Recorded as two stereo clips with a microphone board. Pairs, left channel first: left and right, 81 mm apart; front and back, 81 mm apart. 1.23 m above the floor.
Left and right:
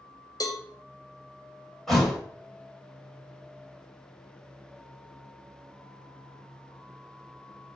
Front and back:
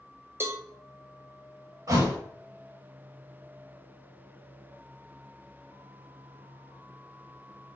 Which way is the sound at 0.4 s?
125° left.